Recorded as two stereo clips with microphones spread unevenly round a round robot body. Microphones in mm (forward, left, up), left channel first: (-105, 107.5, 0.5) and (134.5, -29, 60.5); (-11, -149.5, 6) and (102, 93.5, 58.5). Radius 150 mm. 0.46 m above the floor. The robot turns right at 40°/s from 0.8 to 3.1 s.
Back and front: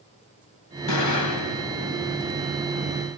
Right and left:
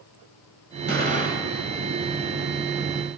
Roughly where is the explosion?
Behind left.